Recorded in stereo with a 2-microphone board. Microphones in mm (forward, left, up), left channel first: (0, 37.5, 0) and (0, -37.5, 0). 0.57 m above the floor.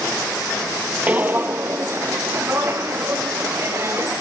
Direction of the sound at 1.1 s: 20° right (ahead or behind).